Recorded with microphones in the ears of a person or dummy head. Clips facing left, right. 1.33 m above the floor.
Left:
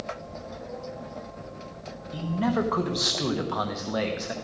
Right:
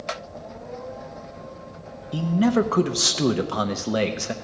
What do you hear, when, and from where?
2.1 s a man speaking: 45° right (ahead or behind), 0.8 m